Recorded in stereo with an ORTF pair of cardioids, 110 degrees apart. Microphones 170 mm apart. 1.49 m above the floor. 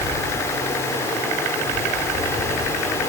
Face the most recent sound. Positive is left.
turn(degrees=15)